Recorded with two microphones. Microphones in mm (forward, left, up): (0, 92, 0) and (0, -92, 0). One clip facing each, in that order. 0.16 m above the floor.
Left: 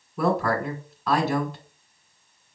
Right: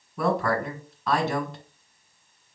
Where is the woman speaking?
Centre (ahead or behind), 1.2 m.